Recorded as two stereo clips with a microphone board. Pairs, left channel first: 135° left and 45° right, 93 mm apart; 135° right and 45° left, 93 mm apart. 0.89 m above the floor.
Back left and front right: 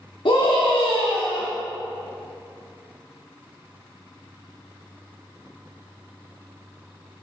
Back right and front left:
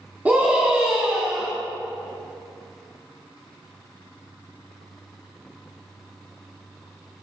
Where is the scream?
120° left, 2.0 m; by 1.5 s 130° left, 1.4 m.